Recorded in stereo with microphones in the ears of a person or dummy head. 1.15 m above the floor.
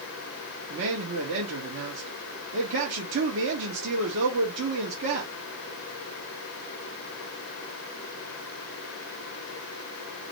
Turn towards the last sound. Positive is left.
turn(degrees=-75)  # may be behind; listen again after turning